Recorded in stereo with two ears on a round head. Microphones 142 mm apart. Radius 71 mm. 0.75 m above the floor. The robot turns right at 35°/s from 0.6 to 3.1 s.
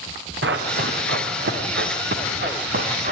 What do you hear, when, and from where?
0.4 s running footsteps: 75° right (ahead or behind), 3.5 m; by 3.1 s 50° right (ahead or behind), 4 m